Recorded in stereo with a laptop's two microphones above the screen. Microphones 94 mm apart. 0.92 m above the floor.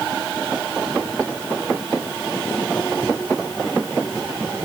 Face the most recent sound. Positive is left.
No sound to turn to.